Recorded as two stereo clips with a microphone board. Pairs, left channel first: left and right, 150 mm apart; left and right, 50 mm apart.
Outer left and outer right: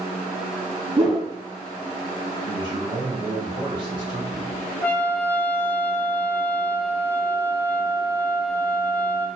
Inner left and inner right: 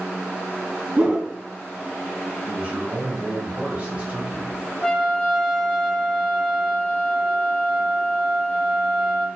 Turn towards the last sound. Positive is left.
turn(degrees=10)  # may be behind; listen again after turning